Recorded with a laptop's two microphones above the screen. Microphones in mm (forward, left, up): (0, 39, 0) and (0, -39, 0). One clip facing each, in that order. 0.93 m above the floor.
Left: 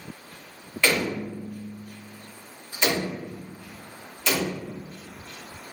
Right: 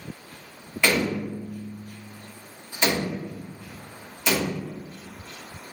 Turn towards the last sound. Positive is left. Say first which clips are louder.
# right 1 dB
turn(degrees=-10)  # may be behind; listen again after turning